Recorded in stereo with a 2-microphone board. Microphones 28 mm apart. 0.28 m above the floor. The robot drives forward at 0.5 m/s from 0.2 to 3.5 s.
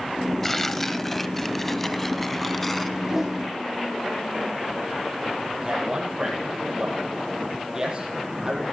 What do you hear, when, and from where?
0.4 s tearing paper: 10° left (ahead or behind), 0.9 m; by 2.9 s 5° left (ahead or behind), 1.9 m
3.0 s a whoosh: 15° right (ahead or behind), 8.5 m
5.6 s a man speaking: 25° right (ahead or behind), 10 m